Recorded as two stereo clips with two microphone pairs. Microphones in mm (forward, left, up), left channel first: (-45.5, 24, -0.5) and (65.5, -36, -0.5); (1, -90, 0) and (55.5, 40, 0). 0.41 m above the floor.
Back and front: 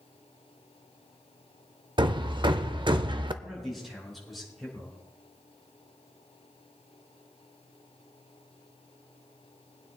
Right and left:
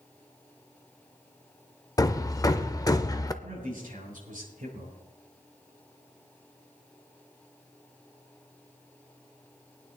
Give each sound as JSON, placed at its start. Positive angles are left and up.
{"t": 2.0, "sound": "hammering", "azimuth_deg": -60, "distance_m": 0.6}
{"t": 3.4, "sound": "a man speaking", "azimuth_deg": 60, "distance_m": 6.0}